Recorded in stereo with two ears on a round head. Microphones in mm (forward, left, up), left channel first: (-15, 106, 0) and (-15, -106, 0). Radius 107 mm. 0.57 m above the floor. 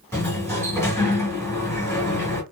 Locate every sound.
0.1 s a sliding door: 10° left (ahead or behind), 1.3 m